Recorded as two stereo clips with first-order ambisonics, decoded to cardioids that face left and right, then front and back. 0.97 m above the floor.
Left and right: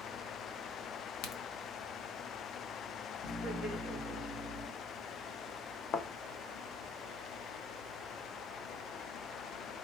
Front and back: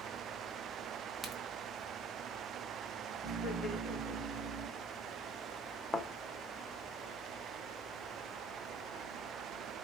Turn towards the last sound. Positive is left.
turn(degrees=75)